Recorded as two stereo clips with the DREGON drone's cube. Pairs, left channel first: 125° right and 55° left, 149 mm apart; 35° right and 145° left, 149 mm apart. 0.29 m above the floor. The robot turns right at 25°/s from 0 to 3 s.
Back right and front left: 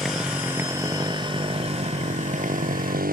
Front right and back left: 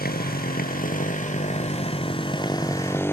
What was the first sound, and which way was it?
A motorcycle, 35° right.